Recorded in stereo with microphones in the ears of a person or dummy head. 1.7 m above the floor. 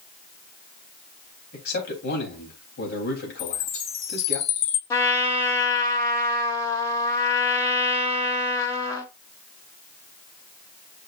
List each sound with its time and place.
1.5 s a man speaking: 65° left (ahead or behind), 3.5 m
3.4 s a chime: 45° left (ahead or behind), 2.5 m
4.9 s a trumpet: 20° left (ahead or behind), 1.1 m